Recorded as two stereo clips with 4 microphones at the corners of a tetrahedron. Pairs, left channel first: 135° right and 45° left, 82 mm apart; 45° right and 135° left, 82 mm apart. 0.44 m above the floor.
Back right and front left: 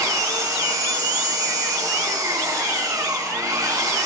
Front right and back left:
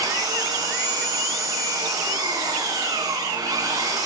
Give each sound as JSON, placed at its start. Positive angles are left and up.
{"t": 0.0, "sound": "an engine running", "azimuth_deg": 90, "distance_m": 8.5}